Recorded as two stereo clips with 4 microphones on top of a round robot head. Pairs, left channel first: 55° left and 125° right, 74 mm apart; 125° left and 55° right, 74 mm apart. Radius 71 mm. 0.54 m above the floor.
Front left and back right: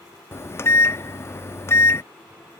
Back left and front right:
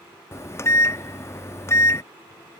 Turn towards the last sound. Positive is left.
turn(degrees=90)